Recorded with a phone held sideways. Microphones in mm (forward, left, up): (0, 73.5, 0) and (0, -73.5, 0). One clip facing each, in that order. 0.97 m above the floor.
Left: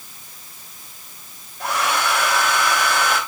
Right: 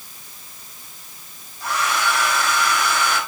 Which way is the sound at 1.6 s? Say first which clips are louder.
Left 1 dB; 85° left.